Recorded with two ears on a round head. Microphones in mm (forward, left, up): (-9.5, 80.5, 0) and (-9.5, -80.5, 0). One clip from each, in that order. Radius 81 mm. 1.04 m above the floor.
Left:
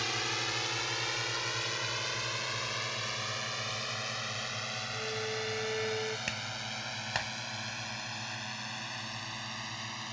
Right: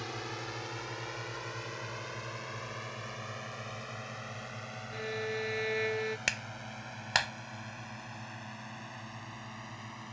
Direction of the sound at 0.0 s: 70° left (ahead or behind).